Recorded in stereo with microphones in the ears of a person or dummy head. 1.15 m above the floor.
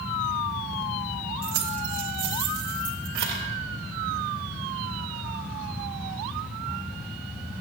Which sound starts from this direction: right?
Keys jangling, at 1.4 s.